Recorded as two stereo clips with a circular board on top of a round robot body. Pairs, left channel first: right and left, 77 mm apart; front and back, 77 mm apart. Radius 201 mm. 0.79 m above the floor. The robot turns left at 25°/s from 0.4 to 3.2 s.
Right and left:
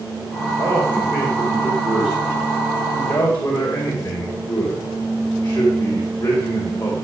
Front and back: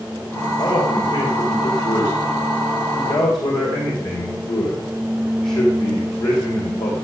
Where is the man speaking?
40° left, 3.5 m; by 7.0 s 25° right, 3.5 m.